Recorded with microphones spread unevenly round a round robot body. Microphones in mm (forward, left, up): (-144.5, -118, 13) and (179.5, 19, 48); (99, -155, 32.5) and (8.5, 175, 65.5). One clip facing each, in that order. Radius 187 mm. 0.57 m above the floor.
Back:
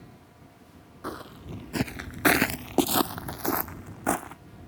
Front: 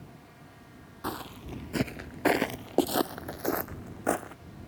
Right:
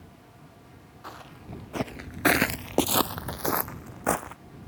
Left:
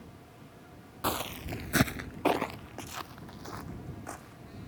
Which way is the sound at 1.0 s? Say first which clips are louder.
Even, left 10 dB; 100° left.